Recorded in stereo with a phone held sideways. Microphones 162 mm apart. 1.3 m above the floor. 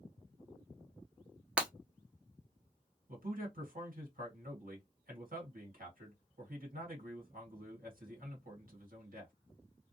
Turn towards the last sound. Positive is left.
turn(degrees=-65)  # may be behind; listen again after turning